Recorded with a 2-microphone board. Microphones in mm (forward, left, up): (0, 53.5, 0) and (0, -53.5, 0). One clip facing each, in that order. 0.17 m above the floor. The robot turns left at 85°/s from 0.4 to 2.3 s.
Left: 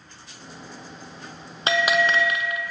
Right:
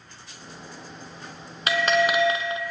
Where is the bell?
25° left, 1.1 m; by 2.6 s 25° right, 1.1 m.